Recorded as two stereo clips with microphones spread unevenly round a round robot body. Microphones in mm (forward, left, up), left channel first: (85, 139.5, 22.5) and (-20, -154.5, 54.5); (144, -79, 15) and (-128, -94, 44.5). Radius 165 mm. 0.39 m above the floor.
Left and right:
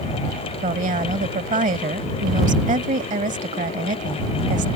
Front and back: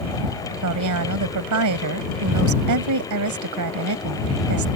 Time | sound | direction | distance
0.6 | a woman speaking | straight behind | ?